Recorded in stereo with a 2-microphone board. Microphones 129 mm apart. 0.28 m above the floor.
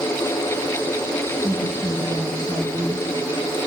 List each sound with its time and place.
1.4 s a woman speaking: 70° right (ahead or behind), 6.5 m